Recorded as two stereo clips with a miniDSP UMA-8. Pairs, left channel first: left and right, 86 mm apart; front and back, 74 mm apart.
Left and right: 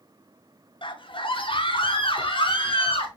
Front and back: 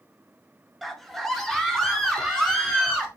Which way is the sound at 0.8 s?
90° left.